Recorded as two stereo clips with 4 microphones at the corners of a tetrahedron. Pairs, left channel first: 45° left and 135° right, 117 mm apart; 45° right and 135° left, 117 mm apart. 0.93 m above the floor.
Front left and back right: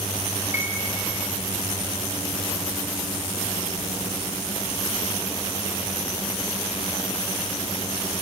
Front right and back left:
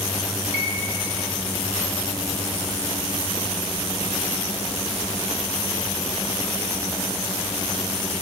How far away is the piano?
About 2.5 m.